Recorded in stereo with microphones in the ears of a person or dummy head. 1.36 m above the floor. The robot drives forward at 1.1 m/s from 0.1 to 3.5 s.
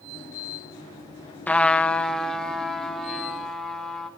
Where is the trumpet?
10° left (ahead or behind), 0.7 m; by 4.1 s centre (ahead or behind), 3 m.